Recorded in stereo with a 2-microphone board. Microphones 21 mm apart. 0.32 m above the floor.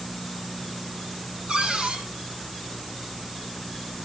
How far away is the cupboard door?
About 5 m.